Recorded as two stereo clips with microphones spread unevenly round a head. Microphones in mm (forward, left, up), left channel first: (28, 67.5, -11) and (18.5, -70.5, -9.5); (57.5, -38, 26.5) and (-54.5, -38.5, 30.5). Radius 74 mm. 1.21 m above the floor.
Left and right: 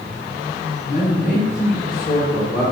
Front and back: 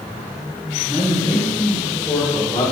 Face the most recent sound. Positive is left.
turn(degrees=55)